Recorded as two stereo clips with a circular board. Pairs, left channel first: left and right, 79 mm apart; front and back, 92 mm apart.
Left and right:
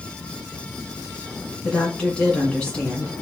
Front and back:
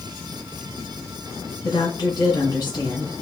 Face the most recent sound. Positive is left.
turn(degrees=15)